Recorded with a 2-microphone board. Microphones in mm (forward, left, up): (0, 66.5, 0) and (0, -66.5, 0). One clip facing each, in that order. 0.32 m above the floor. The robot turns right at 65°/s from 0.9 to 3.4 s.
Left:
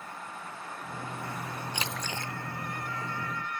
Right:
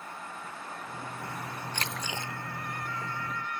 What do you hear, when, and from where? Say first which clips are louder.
1.7 s a splash: even; 170° left; by 2.3 s 155° right